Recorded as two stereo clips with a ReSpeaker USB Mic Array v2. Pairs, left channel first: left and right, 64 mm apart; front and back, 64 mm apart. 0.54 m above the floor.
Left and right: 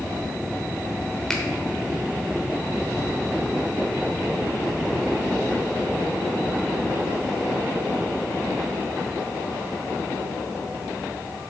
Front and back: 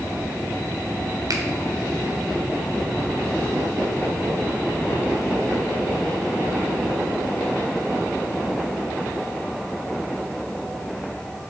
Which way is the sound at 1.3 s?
175° left.